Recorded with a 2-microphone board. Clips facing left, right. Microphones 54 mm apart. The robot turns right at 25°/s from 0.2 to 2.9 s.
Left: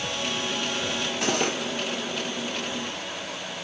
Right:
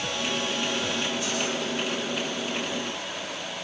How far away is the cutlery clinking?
About 2.5 m.